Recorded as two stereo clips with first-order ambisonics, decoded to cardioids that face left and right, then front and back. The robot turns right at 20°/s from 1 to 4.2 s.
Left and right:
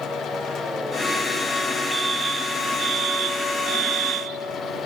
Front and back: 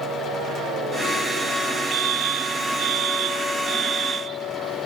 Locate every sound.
1.9 s a fire alarm: 165° right; by 4.9 s 120° right